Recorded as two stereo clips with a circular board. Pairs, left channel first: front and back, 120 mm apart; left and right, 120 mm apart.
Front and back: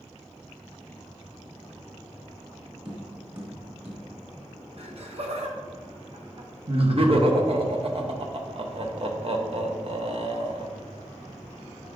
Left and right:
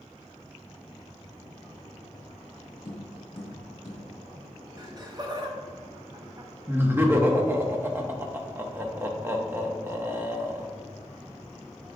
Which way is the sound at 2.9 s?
135° left.